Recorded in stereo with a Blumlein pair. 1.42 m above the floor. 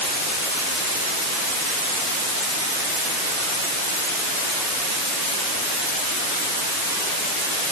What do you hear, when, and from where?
Only background noise.